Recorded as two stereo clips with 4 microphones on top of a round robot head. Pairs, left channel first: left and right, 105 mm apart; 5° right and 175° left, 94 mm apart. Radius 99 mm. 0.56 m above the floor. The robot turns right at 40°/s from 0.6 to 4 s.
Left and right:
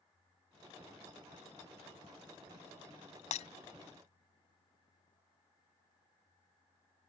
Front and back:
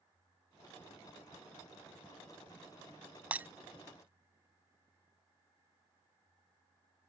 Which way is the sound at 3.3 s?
100° left.